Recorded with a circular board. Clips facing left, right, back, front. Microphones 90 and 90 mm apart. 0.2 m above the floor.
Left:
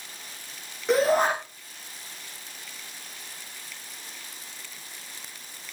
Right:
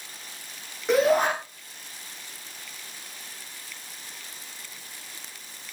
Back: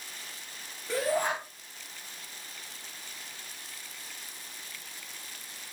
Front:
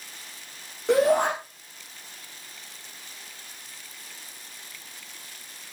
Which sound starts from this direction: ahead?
A shout, at 0.9 s.